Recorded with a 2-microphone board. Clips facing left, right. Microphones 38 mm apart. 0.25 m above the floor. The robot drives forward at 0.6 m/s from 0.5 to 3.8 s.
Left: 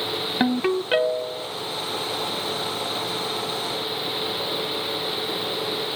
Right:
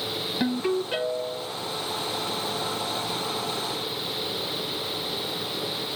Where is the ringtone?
45° left (ahead or behind), 0.9 m; by 1.5 s 40° left (ahead or behind), 1.0 m.